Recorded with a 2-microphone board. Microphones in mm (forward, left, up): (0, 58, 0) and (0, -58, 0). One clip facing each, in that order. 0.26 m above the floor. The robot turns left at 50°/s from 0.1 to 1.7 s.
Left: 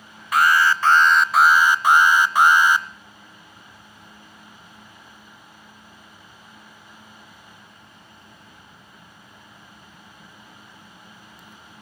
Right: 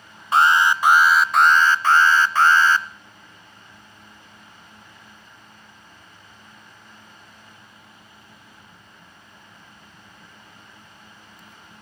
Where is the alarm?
135° right, 0.7 m; by 2.9 s 160° left, 0.7 m.